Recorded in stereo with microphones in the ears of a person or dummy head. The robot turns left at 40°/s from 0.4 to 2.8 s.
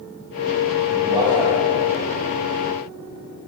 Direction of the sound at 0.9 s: 40° right (ahead or behind).